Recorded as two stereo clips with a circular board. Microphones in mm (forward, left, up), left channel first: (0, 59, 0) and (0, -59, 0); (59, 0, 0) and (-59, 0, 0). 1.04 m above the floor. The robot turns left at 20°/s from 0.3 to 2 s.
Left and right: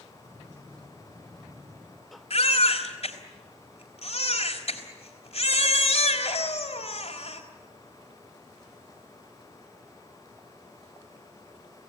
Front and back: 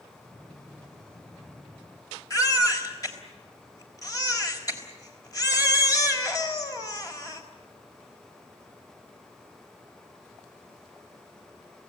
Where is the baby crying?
60° left, 3.5 m.